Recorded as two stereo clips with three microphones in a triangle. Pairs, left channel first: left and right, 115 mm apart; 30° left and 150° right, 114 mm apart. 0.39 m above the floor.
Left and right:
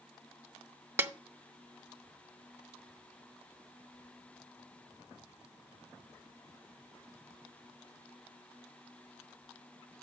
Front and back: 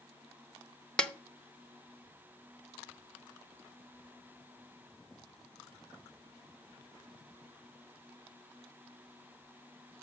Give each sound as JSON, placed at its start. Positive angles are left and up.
{"t": 1.0, "sound": "a snare drum", "azimuth_deg": -45, "distance_m": 0.7}